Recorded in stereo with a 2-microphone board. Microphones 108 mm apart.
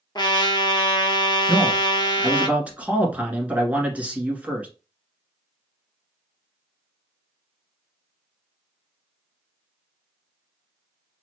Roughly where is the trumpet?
Left.